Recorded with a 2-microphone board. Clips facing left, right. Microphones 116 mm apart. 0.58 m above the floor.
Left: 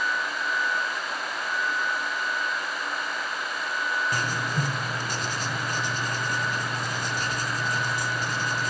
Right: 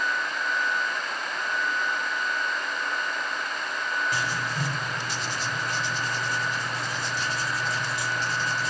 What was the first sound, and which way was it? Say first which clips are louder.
Writing: left 1 dB; 45° left (ahead or behind).